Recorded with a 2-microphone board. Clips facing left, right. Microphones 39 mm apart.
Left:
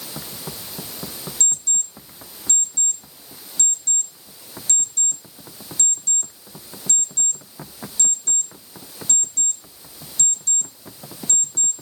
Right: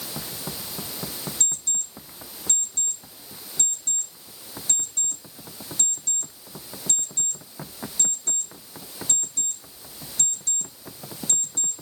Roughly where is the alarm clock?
Right.